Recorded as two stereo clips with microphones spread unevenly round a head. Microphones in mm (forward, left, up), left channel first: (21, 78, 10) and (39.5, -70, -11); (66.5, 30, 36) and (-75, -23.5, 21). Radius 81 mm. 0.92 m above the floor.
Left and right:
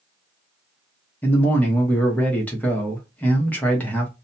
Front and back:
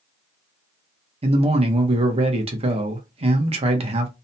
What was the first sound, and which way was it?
A man speaking, 175° right.